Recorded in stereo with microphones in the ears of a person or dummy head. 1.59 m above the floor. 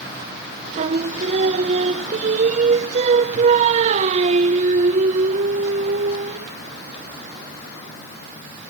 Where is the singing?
40° right (ahead or behind).